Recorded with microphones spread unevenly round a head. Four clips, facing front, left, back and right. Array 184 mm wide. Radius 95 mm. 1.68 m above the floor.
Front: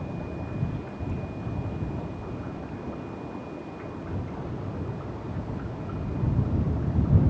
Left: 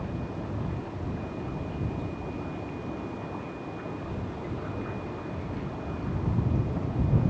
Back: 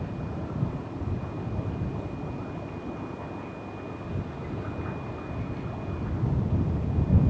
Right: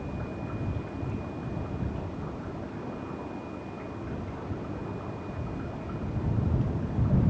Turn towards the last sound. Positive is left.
No sound to turn to.